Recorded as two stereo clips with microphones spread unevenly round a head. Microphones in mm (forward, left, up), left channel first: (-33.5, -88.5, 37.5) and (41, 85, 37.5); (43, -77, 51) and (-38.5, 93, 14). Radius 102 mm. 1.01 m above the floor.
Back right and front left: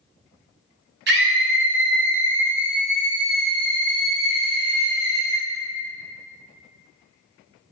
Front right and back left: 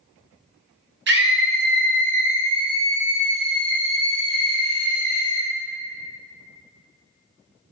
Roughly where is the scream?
Left.